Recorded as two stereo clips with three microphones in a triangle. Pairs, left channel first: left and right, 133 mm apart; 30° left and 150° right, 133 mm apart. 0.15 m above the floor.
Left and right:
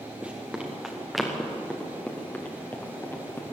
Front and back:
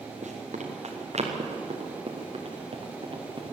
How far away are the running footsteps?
About 4.5 m.